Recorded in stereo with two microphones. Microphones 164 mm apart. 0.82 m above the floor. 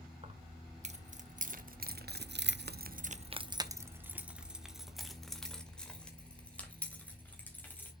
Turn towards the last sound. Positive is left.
turn(degrees=10)  # may be behind; listen again after turning